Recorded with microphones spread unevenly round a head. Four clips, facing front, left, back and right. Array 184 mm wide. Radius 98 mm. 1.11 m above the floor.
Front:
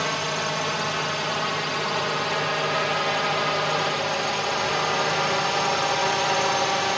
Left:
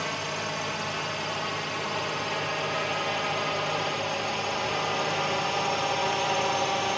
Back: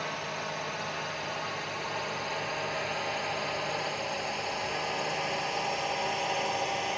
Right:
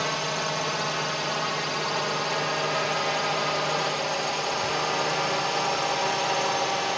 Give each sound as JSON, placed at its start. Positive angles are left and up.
{"t": 0.0, "sound": "a drone", "azimuth_deg": -25}